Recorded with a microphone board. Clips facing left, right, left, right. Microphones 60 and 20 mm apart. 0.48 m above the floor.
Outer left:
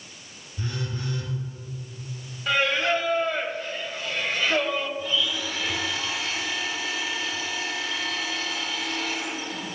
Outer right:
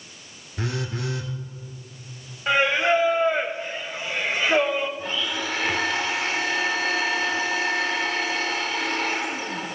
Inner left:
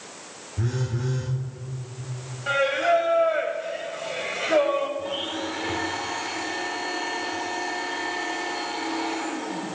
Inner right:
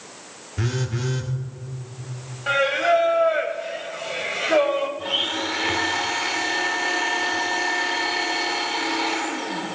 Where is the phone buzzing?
85° right, 2 m.